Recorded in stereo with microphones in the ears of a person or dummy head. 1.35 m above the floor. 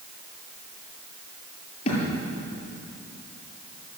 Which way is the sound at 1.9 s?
40° left (ahead or behind).